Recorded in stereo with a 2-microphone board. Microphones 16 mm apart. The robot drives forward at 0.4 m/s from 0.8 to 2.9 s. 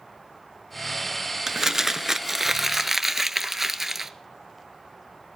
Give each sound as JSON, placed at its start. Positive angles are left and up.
{"t": 1.5, "sound": "crumpling", "side_deg": -25, "distance_m": 0.7}